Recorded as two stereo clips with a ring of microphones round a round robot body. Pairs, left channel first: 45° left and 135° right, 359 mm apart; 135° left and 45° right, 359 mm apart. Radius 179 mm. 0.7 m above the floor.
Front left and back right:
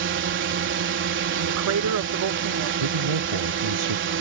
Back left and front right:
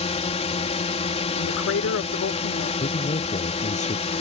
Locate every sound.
0.0 s a drone: 165° right
1.4 s a woman speaking: 175° right
2.8 s a man speaking: 155° right